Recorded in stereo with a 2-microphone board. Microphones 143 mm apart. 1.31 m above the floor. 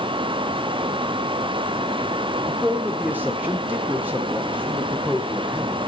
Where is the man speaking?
10° right (ahead or behind), 1.0 m.